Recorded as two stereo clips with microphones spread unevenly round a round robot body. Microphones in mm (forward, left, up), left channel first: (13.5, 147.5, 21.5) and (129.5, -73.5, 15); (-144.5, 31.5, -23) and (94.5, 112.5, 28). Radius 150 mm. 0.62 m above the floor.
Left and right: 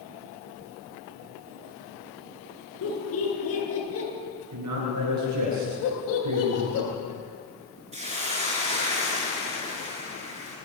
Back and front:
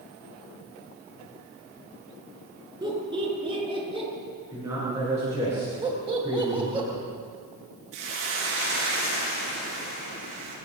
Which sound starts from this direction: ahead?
A hiss, at 7.9 s.